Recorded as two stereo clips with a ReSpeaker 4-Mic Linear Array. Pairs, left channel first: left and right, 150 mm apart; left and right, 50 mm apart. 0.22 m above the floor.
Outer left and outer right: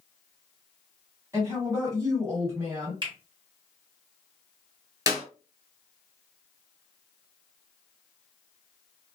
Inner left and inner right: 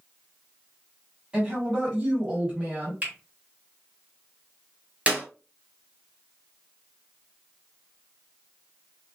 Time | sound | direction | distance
1.3 | a woman speaking | 20° right (ahead or behind) | 1.8 m
3.0 | a finger snap | 30° right (ahead or behind) | 1.5 m
5.1 | a clap | 25° right (ahead or behind) | 1.1 m